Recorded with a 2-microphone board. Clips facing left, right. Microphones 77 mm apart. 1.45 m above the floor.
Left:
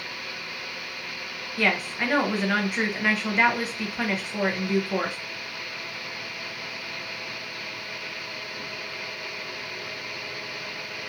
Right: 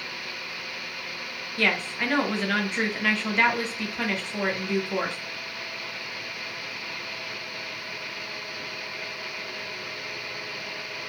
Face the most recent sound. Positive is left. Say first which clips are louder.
# left 1 dB
turn(degrees=10)  # may be behind; listen again after turning